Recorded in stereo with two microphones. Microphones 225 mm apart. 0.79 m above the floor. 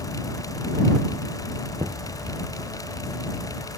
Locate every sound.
1.8 s knocking: 25° right (ahead or behind)